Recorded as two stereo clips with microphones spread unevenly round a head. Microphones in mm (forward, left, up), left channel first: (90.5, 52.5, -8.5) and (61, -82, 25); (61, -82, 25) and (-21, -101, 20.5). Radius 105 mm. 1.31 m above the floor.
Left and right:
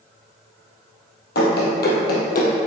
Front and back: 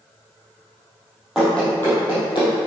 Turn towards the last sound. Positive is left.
turn(degrees=60)